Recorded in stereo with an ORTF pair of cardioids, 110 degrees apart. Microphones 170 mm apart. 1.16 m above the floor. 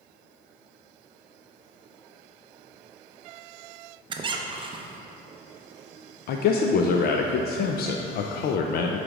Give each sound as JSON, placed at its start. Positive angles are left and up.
{"t": 4.1, "sound": "a squeak", "azimuth_deg": -25, "distance_m": 0.7}
{"t": 6.3, "sound": "a man speaking", "azimuth_deg": 60, "distance_m": 0.5}